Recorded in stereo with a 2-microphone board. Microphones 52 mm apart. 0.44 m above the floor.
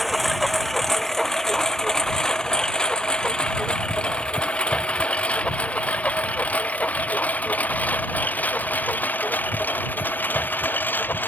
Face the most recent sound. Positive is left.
turn(degrees=35)  # may be behind; listen again after turning